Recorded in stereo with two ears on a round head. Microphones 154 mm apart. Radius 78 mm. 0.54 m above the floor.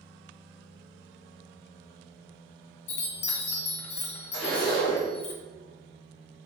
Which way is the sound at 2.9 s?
40° left (ahead or behind).